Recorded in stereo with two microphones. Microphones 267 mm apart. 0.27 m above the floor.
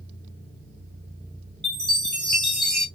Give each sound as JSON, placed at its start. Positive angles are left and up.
{"t": 1.6, "sound": "a chime", "side_deg": 0, "distance_m": 1.9}